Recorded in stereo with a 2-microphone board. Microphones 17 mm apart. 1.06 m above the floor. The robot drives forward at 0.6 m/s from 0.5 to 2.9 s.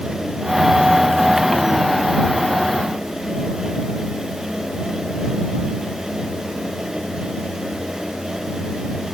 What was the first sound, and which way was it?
Only background noise.